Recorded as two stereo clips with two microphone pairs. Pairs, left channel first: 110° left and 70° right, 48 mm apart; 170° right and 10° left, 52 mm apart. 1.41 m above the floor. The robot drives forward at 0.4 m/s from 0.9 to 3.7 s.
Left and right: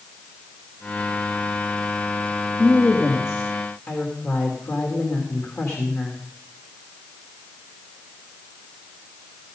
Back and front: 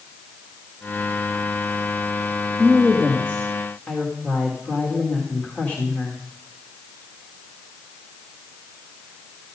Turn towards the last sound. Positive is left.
turn(degrees=135)